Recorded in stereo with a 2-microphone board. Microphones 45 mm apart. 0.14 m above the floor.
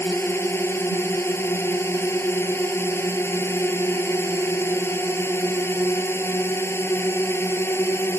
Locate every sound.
0.0 s a drone: 60° left (ahead or behind)